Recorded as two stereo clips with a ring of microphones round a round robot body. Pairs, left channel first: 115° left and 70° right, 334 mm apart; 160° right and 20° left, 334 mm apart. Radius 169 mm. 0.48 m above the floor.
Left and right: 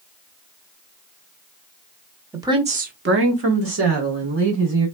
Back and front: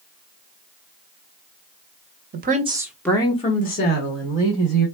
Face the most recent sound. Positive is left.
turn(degrees=-110)